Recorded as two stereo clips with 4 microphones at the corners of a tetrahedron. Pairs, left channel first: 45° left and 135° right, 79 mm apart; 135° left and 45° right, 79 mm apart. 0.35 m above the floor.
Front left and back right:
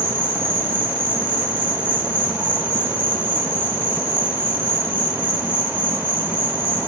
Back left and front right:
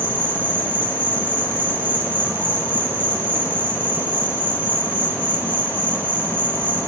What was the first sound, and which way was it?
An insect, straight behind.